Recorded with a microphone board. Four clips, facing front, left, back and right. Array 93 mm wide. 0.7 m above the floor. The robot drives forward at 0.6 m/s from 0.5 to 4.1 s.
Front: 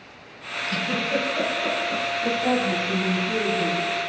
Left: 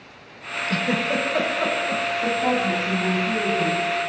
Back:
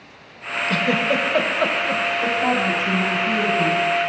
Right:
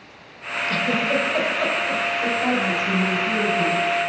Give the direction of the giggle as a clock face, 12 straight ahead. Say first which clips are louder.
Right 1 dB, back 5 dB; 6 o'clock.